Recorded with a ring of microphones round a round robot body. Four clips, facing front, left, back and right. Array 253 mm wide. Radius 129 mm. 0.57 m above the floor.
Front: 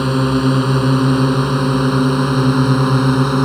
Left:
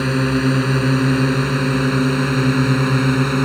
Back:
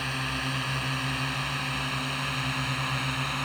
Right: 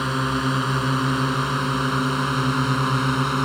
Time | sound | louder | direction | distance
0.0 | a drone | left 5 dB, front 18 dB | 25° left | ?